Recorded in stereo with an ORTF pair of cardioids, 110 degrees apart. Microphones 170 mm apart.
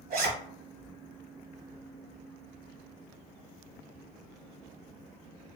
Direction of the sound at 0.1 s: 60° right.